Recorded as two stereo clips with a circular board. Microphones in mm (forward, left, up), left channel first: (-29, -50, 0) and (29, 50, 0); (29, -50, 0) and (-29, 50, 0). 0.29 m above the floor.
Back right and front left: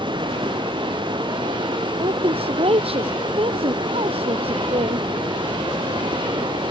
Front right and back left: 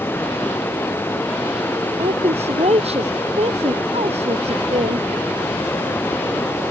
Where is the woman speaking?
95° left.